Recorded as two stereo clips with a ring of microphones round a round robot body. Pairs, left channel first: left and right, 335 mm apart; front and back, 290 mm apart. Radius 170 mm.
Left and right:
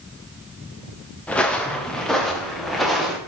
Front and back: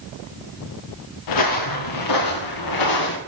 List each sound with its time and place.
1.3 s footsteps: 5° left, 1.8 m; by 3.2 s straight ahead, 3 m